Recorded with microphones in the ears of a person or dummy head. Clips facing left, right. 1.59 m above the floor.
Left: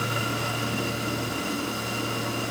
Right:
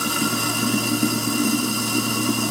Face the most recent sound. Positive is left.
turn(degrees=-55)  # may be behind; listen again after turning